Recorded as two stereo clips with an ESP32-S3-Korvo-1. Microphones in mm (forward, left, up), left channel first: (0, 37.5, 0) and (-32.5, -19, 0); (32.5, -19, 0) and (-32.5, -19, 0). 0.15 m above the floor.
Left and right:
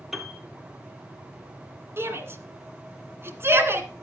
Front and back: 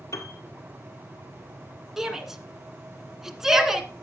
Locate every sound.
0.1 s a piano: 35° right, 1.9 m
2.0 s a shout: 100° right, 1.9 m